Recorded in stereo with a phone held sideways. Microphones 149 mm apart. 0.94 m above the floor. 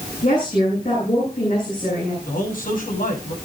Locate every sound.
0.2 s a woman speaking: 50° left (ahead or behind), 9 m
2.2 s a man speaking: 70° left (ahead or behind), 8 m